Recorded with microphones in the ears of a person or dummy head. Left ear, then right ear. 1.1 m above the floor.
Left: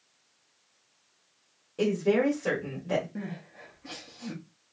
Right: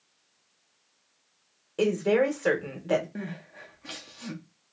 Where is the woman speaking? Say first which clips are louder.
Right 2 dB; 30° right (ahead or behind), 1.3 m.